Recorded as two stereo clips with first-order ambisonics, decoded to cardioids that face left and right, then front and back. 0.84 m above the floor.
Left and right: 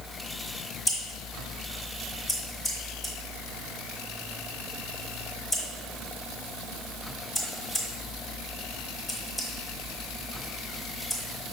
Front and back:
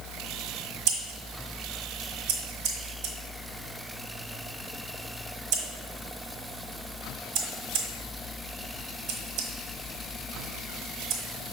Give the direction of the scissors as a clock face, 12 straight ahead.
6 o'clock.